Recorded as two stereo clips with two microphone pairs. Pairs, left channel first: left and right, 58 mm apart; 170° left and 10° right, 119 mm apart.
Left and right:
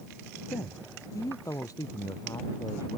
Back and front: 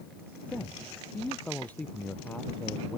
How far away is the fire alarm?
I don't hear a fire alarm.